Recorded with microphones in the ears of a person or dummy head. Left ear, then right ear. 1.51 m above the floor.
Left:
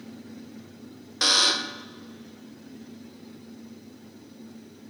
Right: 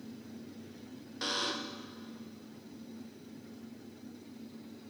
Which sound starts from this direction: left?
A buzzer, at 1.2 s.